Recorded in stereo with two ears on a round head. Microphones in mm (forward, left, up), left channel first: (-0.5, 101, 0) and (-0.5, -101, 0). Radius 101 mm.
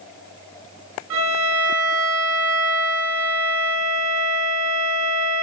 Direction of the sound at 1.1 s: 65° right (ahead or behind).